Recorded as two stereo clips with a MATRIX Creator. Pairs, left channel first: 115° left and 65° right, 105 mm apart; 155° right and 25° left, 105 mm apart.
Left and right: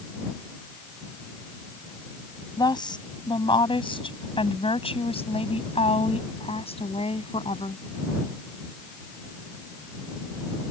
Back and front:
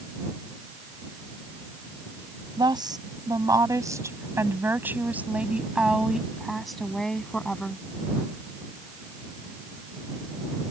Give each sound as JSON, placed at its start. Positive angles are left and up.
{"t": 2.6, "sound": "a woman speaking", "azimuth_deg": 70}